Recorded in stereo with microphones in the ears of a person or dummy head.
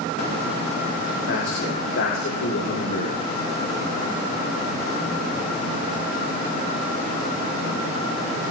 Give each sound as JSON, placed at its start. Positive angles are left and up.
{"t": 1.3, "sound": "a man speaking", "side_deg": 55, "distance_m": 4.5}